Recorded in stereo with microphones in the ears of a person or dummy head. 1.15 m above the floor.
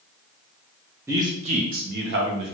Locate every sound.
1.1 s a man speaking: 15° right (ahead or behind), 0.6 m; by 2.6 s 65° right (ahead or behind), 1.0 m